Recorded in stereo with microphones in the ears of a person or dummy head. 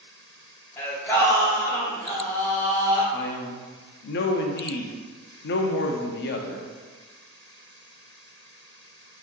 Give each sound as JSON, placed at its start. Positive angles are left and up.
{"t": 0.8, "sound": "singing", "side_deg": 15, "distance_m": 1.2}
{"t": 3.1, "sound": "a man speaking", "side_deg": 50, "distance_m": 0.5}